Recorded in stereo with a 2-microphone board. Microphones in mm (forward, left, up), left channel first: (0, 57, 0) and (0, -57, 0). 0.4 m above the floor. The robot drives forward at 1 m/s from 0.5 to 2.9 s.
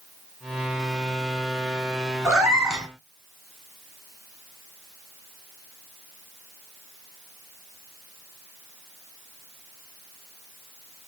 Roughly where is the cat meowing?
Centre.